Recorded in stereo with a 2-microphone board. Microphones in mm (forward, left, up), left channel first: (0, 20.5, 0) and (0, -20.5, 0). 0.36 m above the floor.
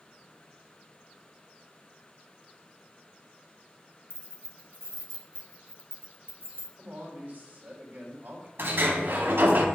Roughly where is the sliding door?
Right.